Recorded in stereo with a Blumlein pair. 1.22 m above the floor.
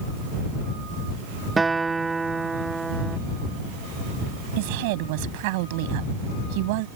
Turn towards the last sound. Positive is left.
turn(degrees=-45)